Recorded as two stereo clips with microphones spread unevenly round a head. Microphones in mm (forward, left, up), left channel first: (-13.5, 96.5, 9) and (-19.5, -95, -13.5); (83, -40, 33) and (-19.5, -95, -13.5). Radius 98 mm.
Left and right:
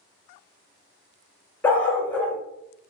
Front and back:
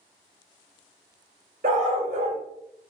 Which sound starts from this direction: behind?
A dog barking, at 1.6 s.